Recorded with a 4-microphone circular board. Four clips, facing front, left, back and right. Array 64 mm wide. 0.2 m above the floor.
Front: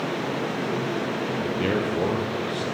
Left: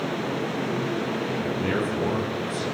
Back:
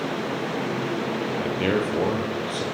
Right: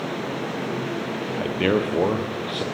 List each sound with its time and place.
1.4 s a man speaking: 100° right, 4.5 m